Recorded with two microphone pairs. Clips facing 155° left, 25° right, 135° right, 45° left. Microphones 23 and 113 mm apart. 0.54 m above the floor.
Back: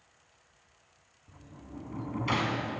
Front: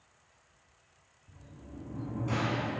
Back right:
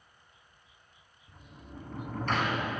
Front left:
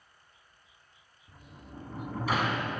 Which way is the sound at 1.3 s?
130° left.